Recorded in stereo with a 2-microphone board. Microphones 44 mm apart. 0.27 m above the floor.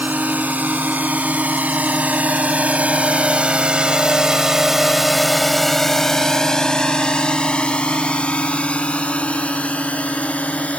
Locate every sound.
0.0 s a drone: 45° right (ahead or behind); by 10.8 s 35° left (ahead or behind)